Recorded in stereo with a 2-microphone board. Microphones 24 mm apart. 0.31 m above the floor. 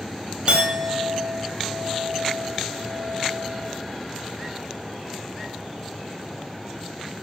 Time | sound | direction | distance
0.5 | a clink | 50° right (ahead or behind) | 0.7 m